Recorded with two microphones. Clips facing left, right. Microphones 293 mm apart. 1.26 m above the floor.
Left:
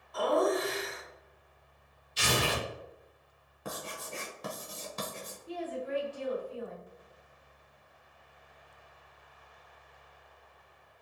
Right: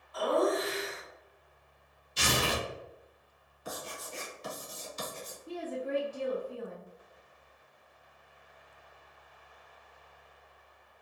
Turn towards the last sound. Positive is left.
turn(degrees=-55)  # may be behind; listen again after turning